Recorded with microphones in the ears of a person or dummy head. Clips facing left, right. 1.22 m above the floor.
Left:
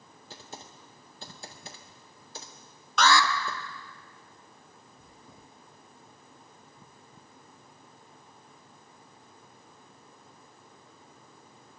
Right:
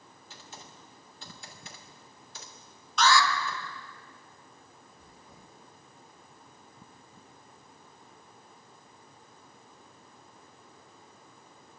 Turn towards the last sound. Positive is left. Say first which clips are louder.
# left 2 dB
turn(degrees=20)  # may be behind; listen again after turning